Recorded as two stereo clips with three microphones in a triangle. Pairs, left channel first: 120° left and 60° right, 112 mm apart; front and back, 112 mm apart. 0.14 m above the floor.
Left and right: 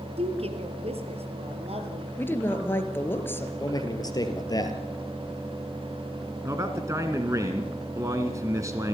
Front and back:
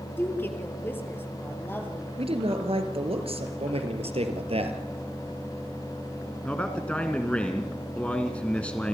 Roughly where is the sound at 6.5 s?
Right.